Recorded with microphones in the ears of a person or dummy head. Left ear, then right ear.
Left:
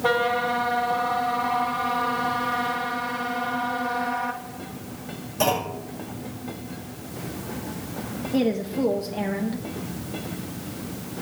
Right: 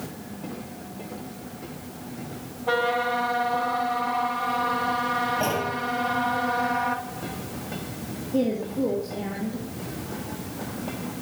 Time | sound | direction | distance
5.4 | a clunk | 70° left (ahead or behind) | 7 m
8.3 | a woman speaking | 60° left (ahead or behind) | 1.4 m